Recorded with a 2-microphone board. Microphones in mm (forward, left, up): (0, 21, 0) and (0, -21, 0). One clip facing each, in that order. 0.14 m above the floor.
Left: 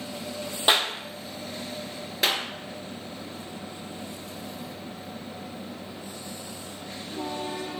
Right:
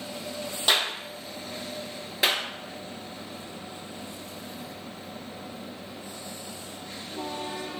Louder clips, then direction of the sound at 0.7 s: Left 2 dB; 20° left (ahead or behind).